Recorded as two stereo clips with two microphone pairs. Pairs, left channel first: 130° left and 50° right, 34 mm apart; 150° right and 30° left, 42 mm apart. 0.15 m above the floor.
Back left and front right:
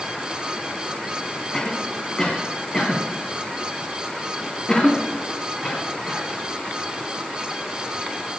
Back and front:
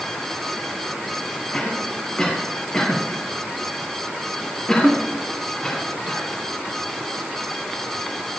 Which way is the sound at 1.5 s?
160° left.